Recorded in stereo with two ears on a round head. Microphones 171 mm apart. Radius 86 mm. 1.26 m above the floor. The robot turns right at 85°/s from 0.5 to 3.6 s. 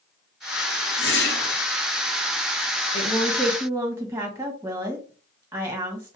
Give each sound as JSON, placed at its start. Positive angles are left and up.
{"t": 1.0, "sound": "a whoosh", "azimuth_deg": 90, "distance_m": 2.5}
{"t": 2.9, "sound": "a woman speaking", "azimuth_deg": 140, "distance_m": 1.5}